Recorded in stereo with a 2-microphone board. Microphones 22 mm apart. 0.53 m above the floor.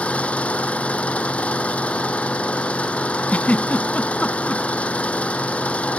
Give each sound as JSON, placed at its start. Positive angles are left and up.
{"t": 0.0, "sound": "an engine running", "side_deg": 85}
{"t": 3.3, "sound": "a giggle", "side_deg": 90}